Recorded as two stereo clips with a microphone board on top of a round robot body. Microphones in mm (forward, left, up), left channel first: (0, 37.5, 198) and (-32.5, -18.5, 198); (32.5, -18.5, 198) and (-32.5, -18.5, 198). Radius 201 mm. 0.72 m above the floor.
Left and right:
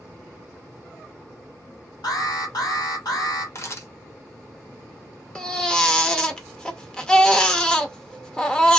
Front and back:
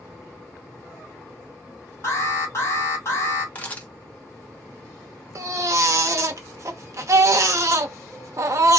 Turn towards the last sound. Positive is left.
turn(degrees=135)